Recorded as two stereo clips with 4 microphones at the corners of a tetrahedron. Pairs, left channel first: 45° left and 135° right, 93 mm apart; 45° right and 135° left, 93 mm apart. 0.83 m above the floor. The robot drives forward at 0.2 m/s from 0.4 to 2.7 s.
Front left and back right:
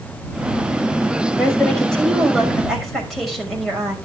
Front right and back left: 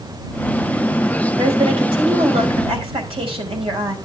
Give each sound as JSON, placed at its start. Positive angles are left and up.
{"t": 1.4, "sound": "a woman speaking", "azimuth_deg": 130, "distance_m": 5.0}